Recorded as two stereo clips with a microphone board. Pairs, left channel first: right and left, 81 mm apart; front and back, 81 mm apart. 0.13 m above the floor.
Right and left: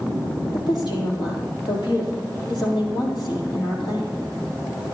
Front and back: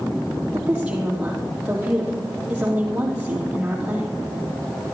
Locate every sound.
0.5 s a woman speaking: 105° right, 4 m